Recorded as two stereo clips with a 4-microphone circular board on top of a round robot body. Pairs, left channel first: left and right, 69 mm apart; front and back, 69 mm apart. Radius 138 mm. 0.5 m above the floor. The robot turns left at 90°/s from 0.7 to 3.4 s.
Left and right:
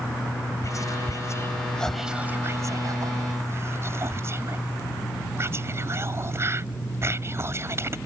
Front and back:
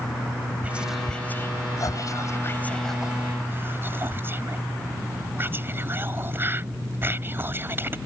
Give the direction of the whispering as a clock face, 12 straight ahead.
8 o'clock.